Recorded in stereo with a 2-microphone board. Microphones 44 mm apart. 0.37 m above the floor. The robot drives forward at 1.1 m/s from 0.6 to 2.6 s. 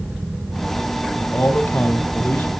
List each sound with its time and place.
1.2 s a man speaking: 60° left (ahead or behind), 2.5 m; by 2.5 s 55° left (ahead or behind), 3 m